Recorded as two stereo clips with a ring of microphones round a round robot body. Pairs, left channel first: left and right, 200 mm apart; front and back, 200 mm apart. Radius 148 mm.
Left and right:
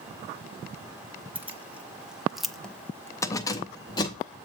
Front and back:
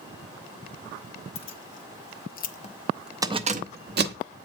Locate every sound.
1.4 s keys jangling: 10° right, 1.3 m; by 4.2 s 160° left, 1.0 m